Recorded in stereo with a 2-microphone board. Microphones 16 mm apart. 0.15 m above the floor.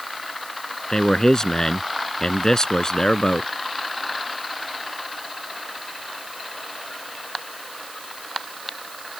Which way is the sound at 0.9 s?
40° left (ahead or behind).